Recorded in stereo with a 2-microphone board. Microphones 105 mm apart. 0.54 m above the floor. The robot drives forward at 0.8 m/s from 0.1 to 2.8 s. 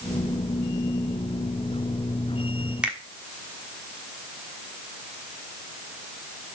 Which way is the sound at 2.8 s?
10° right (ahead or behind).